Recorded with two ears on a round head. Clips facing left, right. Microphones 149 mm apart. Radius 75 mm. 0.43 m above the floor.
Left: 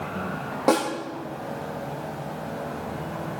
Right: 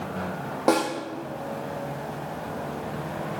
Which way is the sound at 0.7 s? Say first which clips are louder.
Left 1 dB; centre (ahead or behind).